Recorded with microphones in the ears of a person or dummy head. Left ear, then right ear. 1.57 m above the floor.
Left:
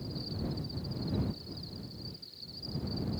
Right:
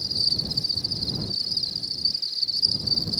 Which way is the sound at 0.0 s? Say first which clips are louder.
Right 17 dB; 80° right.